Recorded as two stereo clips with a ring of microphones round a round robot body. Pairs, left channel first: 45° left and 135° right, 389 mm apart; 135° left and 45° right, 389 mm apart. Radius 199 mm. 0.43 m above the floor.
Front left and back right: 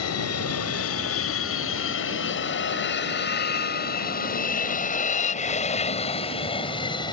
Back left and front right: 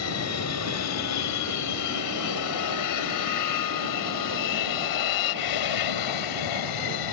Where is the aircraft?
90° left; by 7.1 s 125° left.